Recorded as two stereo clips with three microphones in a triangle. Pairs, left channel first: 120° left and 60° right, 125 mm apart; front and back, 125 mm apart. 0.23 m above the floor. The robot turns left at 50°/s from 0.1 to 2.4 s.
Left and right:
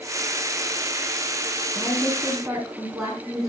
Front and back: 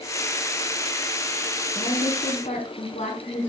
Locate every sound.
1.8 s a woman speaking: 55° left, 2.5 m; by 3.5 s 20° left, 2.5 m